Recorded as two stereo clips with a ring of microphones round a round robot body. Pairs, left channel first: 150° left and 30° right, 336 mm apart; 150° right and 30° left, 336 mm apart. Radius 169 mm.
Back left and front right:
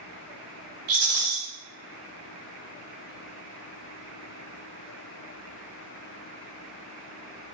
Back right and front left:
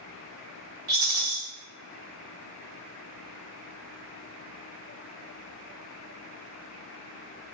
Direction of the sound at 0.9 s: 30° left.